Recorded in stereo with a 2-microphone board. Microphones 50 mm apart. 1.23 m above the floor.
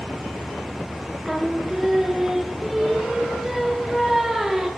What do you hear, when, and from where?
1.2 s singing: 5° right (ahead or behind), 0.9 m